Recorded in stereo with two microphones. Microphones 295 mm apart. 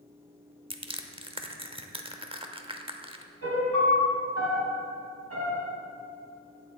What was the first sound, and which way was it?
Crushing, 20° right (ahead or behind).